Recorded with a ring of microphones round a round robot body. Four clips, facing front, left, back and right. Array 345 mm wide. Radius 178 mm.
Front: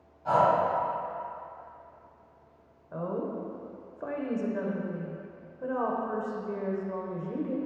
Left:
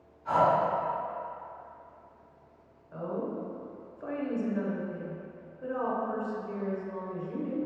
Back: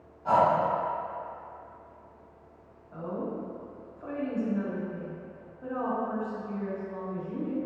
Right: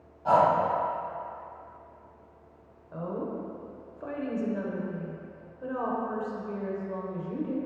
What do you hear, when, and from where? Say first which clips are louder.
0.2 s breathing: right 3 dB, back 1 dB; 90° right, 1.7 m
2.9 s a woman speaking: even, front 2 dB; 20° right, 1.3 m